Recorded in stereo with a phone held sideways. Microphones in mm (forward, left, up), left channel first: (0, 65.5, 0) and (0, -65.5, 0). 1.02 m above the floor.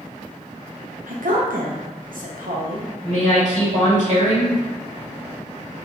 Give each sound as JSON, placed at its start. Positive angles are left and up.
{"t": 1.1, "sound": "a woman speaking", "side_deg": -80, "distance_m": 0.7}
{"t": 3.0, "sound": "a woman speaking", "side_deg": -60, "distance_m": 1.9}